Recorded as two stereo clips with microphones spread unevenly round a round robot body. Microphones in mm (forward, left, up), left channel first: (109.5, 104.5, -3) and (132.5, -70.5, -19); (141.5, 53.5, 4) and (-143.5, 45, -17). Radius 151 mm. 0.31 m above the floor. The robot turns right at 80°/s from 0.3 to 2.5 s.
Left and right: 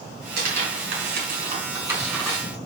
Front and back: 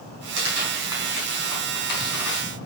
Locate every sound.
0.4 s tearing paper: 130° right, 3.5 m; by 2.4 s 35° left, 3.5 m